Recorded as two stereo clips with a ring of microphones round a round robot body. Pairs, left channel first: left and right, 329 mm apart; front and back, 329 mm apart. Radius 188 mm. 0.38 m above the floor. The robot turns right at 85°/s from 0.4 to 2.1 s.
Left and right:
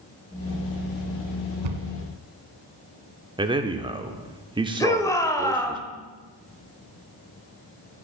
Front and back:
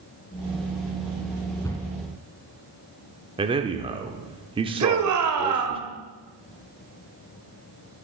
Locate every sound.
1.6 s a cupboard door: 85° right, 1.2 m; by 1.8 s 65° right, 1.2 m
3.4 s a man speaking: 140° right, 0.8 m
4.8 s a shout: 170° left, 1.9 m